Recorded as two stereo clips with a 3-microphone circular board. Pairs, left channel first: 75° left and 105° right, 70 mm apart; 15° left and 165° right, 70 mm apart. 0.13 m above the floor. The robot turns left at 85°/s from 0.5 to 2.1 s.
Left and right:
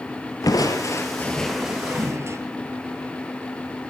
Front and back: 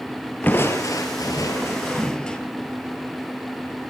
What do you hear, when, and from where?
0.4 s crushing: 75° left, 2 m; by 2.4 s 60° right, 2 m